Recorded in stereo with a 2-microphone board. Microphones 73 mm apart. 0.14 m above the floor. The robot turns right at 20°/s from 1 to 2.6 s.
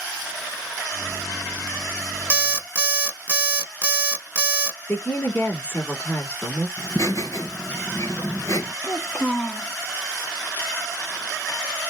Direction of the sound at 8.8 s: 5° right (ahead or behind).